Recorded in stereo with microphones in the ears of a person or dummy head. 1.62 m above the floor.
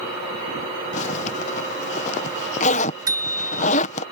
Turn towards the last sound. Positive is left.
turn(degrees=-30)  # may be behind; listen again after turning